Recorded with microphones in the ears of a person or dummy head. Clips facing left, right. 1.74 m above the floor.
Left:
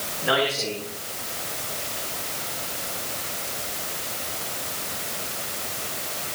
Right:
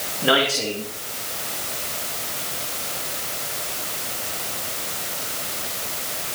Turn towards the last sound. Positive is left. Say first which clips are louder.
# right 3 dB
turn(degrees=-45)  # may be behind; listen again after turning